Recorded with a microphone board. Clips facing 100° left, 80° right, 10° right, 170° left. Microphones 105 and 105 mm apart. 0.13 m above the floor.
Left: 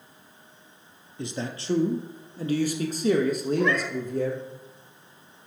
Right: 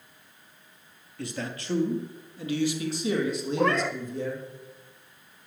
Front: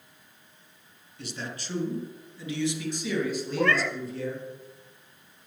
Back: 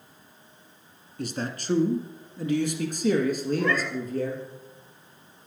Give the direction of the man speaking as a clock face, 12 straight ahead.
7 o'clock.